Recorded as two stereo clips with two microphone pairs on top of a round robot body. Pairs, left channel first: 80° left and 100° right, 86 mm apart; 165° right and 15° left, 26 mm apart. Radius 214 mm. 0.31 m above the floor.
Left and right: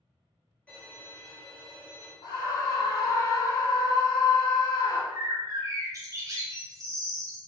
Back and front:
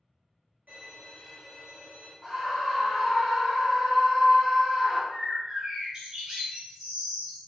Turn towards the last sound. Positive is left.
turn(degrees=-50)